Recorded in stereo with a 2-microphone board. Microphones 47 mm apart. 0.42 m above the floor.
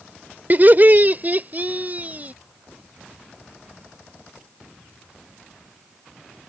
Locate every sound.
0.5 s laughter: 40° right (ahead or behind); by 2.3 s 35° right (ahead or behind)